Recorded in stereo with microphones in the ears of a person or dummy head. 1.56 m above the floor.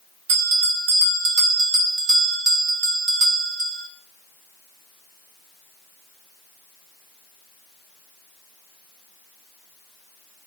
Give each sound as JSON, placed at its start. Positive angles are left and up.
{"t": 0.3, "sound": "a bell", "side_deg": -65, "distance_m": 2.5}